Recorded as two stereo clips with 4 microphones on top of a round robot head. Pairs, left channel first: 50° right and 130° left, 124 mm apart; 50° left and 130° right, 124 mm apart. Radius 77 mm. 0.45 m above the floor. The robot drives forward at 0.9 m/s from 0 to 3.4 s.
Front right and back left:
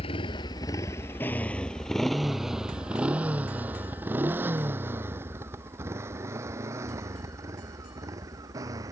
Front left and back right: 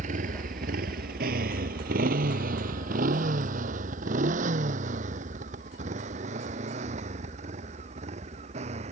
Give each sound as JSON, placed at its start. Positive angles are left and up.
{"t": 0.0, "sound": "a motorcycle", "azimuth_deg": -100}